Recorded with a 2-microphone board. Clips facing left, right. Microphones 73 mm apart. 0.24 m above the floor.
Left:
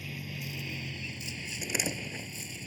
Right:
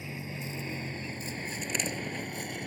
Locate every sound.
0.0 s a vehicle: 25° right (ahead or behind); by 2.7 s 60° right (ahead or behind)
1.6 s a door slam: 5° left (ahead or behind)